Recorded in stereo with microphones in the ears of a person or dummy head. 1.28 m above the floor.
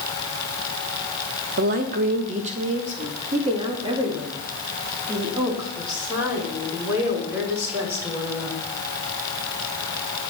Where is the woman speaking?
50° right (ahead or behind), 1.2 m; by 8.7 s 15° right (ahead or behind), 4.5 m.